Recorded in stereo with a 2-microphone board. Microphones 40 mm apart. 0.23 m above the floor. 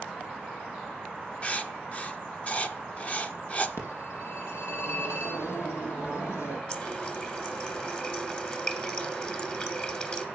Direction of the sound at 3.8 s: 75° left (ahead or behind).